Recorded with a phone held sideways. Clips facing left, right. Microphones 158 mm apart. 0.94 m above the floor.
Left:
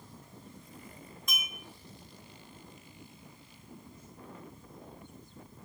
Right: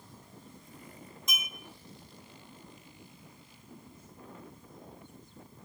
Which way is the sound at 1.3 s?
20° right (ahead or behind).